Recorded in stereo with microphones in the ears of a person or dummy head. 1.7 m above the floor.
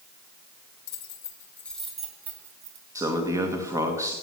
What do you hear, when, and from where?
0.9 s keys jangling: 35° left (ahead or behind), 1.6 m; by 2.9 s 25° right (ahead or behind), 2.5 m
3.0 s a man speaking: 20° right (ahead or behind), 1.6 m